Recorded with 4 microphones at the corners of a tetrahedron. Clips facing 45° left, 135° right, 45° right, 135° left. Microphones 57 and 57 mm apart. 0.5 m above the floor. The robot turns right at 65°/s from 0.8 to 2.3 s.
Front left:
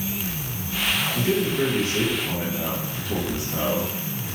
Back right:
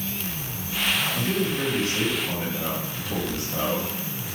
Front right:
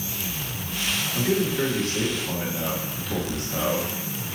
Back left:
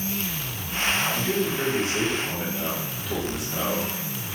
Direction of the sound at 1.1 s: 10° left.